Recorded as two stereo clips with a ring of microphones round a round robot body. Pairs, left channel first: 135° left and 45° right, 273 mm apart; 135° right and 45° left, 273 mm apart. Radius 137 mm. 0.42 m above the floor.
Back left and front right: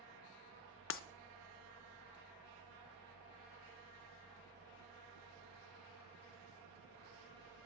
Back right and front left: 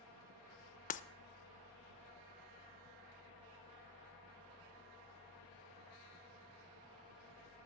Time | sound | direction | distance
0.9 | breaking glass | 165° left | 0.6 m